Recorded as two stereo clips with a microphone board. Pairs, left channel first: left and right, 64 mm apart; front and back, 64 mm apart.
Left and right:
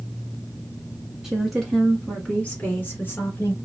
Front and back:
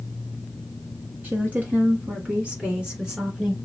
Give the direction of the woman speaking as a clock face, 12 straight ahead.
6 o'clock.